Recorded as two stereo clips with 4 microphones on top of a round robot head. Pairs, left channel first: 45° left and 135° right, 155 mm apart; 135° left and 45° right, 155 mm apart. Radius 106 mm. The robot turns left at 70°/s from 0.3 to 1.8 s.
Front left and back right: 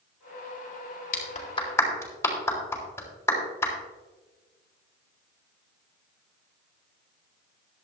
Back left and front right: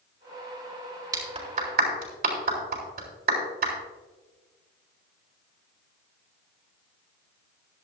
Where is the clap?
20° left, 3.5 m; by 3.7 s 30° right, 3.5 m.